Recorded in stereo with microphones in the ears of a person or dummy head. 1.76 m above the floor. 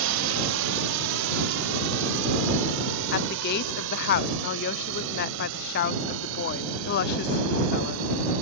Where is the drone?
70° right (ahead or behind); by 8.4 s 80° right.